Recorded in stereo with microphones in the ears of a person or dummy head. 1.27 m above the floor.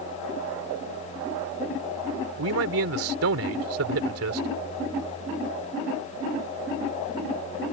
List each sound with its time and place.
2.4 s a man speaking: 75° right (ahead or behind)